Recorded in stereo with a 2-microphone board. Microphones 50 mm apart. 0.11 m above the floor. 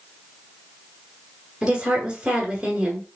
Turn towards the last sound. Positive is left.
turn(degrees=-20)  # may be behind; listen again after turning